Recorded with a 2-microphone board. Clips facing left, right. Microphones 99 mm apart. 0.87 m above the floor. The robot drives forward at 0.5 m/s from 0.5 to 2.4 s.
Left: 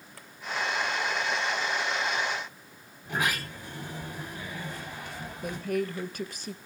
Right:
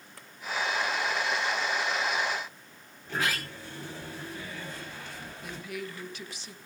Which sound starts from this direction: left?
A woman speaking, at 5.4 s.